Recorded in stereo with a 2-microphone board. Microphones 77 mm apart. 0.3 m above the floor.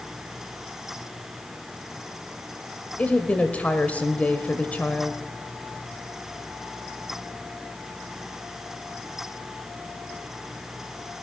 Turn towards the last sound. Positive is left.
turn(degrees=20)  # may be behind; listen again after turning